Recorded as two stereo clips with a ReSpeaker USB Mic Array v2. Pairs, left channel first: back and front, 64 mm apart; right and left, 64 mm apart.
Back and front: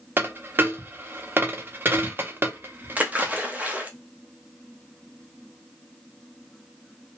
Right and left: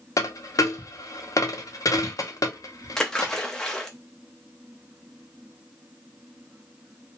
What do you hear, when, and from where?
0.2 s a dropped coin: 60° right, 0.5 m
3.0 s a splash: 20° right, 0.6 m